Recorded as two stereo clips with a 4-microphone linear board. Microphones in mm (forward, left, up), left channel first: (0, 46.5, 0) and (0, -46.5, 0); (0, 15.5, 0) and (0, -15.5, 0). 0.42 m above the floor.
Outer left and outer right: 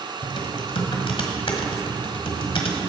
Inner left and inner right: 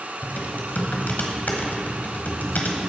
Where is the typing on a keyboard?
70° left (ahead or behind), 1.4 m.